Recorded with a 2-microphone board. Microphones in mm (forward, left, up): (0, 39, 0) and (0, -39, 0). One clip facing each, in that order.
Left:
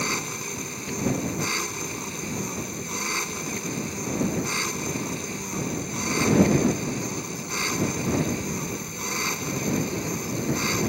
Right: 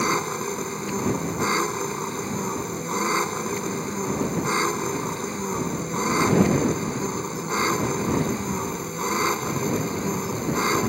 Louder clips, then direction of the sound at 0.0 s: Right 6 dB; 35° right (ahead or behind).